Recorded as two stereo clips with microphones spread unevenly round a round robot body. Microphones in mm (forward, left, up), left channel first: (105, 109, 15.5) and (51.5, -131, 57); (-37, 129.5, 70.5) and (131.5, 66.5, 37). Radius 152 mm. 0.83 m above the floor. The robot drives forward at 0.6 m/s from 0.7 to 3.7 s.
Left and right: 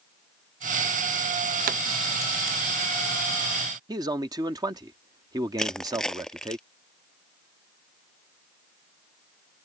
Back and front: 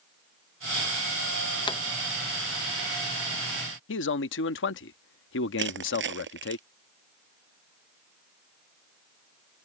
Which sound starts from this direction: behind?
A man speaking, at 3.9 s.